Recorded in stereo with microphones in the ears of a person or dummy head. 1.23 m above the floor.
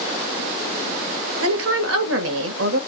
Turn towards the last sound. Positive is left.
turn(degrees=-80)